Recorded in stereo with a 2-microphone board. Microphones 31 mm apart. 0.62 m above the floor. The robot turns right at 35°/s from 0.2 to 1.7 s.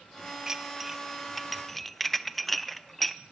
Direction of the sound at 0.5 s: 15° right (ahead or behind).